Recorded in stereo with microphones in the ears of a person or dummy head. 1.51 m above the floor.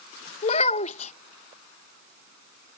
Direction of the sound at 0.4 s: 35° left (ahead or behind).